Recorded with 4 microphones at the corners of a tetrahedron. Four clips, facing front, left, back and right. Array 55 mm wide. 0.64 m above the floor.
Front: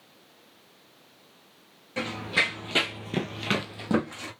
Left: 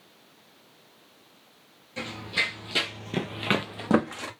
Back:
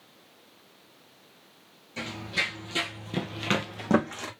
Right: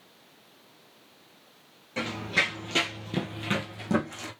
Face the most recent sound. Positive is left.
turn(degrees=120)